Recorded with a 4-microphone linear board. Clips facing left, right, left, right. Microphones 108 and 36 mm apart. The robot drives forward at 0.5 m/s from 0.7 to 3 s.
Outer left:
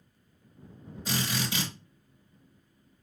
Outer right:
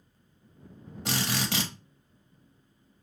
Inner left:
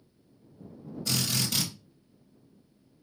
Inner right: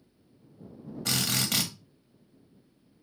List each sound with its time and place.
1.1 s a drill: 70° right (ahead or behind), 1.4 m; by 1.7 s 75° right (ahead or behind), 1.4 m